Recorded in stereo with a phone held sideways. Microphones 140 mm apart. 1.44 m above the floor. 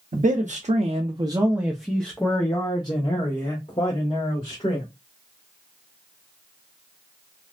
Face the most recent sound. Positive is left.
turn(degrees=50)  # may be behind; listen again after turning